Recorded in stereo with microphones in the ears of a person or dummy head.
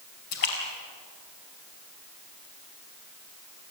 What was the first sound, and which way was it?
A splash, 60° left (ahead or behind).